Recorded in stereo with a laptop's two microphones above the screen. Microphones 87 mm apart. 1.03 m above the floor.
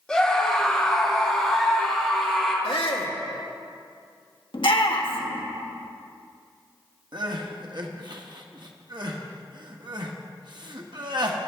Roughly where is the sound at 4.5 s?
Left.